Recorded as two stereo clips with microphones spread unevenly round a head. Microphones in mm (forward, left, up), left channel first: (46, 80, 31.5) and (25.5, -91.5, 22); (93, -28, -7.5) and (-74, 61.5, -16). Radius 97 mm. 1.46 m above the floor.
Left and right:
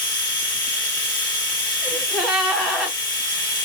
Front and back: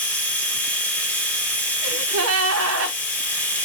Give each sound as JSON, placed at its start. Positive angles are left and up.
{"t": 0.0, "sound": "a machine running", "azimuth_deg": 45, "distance_m": 1.1}
{"t": 1.8, "sound": "a gasp", "azimuth_deg": 175, "distance_m": 0.5}